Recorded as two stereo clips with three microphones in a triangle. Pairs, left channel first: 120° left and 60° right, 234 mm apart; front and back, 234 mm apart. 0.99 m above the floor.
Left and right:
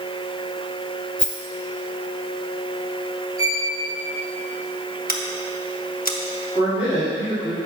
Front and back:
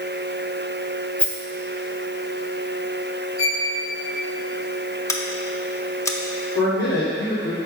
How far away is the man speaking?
About 3 m.